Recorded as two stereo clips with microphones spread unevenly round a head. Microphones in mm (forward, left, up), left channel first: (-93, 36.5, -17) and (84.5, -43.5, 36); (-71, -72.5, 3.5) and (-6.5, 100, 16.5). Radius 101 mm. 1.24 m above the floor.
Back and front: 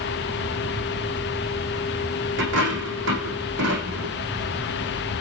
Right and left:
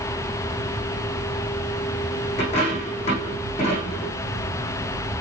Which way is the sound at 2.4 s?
50° right.